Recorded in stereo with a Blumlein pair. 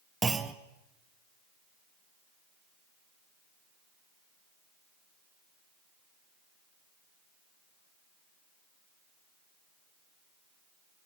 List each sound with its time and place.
0.2 s a clunk: 15° right, 1.4 m